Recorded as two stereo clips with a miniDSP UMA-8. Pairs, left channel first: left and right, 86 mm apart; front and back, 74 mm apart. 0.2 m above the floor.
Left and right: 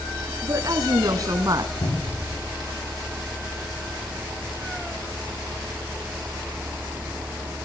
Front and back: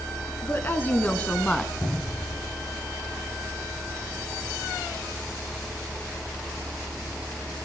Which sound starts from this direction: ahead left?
A cupboard door, at 1.8 s.